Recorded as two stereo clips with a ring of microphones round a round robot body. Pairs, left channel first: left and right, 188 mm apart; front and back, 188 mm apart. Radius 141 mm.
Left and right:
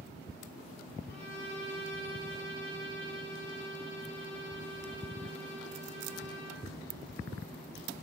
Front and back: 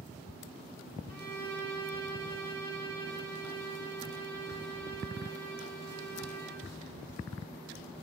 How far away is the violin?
About 4.5 m.